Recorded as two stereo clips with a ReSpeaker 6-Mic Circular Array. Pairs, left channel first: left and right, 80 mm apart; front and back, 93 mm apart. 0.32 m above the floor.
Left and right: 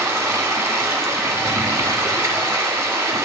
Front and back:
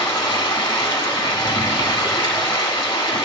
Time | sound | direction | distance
0.0 | running water | 35° right | 1.0 m